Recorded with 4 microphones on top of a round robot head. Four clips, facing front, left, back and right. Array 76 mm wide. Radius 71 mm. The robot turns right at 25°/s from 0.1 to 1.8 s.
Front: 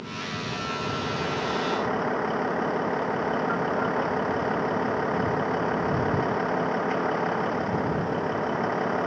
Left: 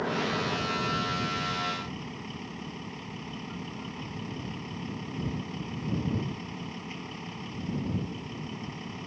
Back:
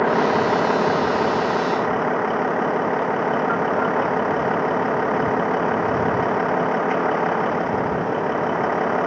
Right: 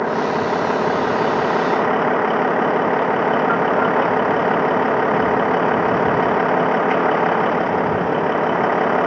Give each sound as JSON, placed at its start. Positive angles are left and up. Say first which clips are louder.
{"t": 0.0, "sound": "a vehicle", "louder": "right 11 dB, back 16 dB", "azimuth_deg": -150}